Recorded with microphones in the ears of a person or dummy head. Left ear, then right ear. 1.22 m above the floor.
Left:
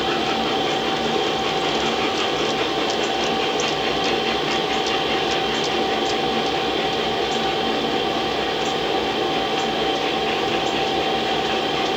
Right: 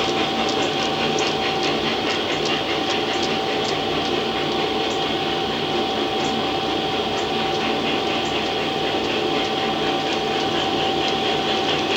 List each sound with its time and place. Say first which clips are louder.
0.0 s a fan: even; 10° left (ahead or behind), 1.1 m